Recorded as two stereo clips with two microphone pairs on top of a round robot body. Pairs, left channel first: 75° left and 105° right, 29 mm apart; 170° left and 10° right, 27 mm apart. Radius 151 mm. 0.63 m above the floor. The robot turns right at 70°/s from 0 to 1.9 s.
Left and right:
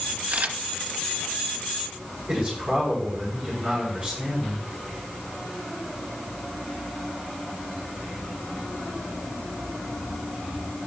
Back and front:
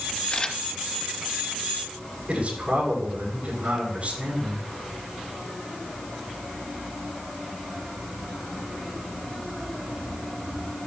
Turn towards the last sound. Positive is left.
turn(degrees=-55)